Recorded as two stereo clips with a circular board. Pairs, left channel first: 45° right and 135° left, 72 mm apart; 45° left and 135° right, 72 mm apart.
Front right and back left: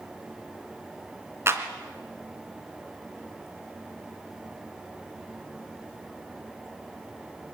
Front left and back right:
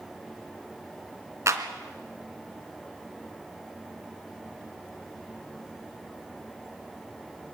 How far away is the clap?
About 2.5 m.